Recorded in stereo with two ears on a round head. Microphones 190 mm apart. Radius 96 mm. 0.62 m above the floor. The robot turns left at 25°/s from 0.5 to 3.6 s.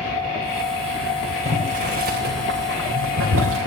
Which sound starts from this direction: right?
Boiling, at 1.4 s.